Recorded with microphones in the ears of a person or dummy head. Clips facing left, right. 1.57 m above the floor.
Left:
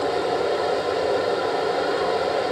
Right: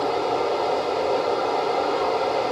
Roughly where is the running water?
Centre.